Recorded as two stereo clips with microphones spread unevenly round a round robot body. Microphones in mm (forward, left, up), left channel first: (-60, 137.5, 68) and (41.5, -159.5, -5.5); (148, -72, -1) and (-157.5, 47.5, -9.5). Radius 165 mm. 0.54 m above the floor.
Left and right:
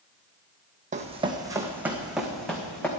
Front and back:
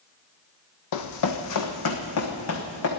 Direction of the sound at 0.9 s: 5° left.